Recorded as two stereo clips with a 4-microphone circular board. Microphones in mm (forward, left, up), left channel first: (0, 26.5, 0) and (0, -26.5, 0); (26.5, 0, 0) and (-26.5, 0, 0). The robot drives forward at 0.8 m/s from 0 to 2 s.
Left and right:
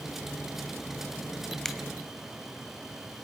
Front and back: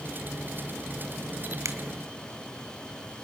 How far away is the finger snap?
About 1.8 m.